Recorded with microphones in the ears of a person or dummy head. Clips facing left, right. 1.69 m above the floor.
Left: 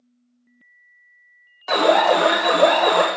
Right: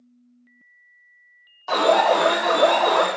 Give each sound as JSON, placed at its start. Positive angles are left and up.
{"t": 1.7, "sound": "an alarm", "side_deg": 25, "distance_m": 0.7}